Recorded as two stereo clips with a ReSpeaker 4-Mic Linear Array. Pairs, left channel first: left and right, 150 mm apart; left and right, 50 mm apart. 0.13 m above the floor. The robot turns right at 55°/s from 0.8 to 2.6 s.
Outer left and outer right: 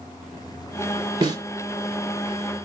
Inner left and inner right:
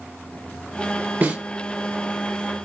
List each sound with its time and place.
1.2 s a snare drum: 30° right (ahead or behind), 1.7 m; by 1.4 s 20° right (ahead or behind), 1.7 m